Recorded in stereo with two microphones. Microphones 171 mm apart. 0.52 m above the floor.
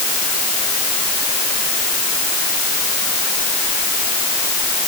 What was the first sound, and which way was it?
Only background noise.